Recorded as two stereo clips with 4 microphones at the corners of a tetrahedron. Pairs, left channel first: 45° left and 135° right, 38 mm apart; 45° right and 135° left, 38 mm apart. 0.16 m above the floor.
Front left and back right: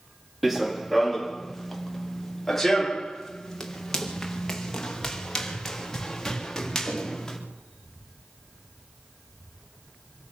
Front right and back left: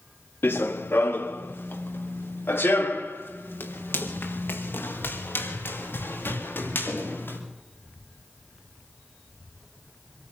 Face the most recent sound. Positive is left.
turn(degrees=-35)